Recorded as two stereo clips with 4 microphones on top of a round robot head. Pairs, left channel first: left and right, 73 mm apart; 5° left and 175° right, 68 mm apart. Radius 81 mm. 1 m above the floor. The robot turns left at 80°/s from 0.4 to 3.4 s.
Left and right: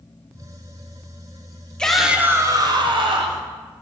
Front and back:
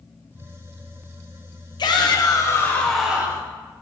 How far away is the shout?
About 1.5 m.